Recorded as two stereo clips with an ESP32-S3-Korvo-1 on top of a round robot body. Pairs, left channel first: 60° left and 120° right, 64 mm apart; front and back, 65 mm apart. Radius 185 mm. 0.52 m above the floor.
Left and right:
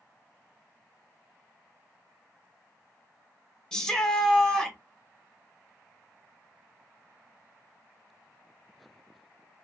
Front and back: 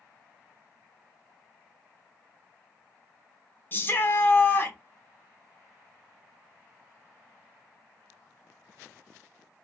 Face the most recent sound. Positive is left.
turn(degrees=-10)